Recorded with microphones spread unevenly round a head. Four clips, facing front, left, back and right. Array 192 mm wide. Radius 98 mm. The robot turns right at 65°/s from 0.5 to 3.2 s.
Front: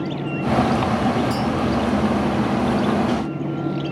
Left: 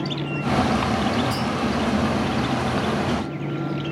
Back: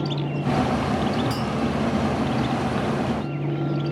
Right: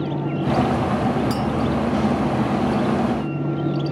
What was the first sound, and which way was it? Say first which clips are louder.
A clink: right 3 dB, front 5 dB; 80° right.